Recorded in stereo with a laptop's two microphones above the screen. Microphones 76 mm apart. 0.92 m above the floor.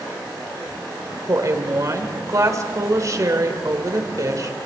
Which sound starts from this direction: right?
A woman speaking, at 1.3 s.